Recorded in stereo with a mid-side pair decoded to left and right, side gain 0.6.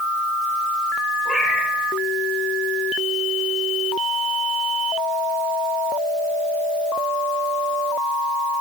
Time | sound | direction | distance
1.2 | a cat meowing | 5° right | 3.5 m